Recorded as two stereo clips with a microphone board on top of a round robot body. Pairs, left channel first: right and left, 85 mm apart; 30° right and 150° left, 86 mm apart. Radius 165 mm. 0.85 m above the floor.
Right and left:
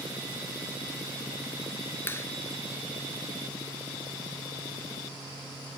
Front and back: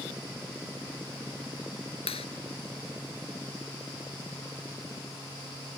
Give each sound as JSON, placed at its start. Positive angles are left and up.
{"t": 2.1, "sound": "a clap", "azimuth_deg": -25}